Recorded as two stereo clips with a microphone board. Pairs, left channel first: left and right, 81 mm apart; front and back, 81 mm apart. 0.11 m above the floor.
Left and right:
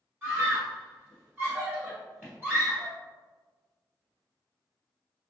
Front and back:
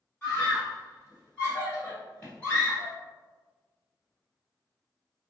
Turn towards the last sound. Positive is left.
turn(degrees=-55)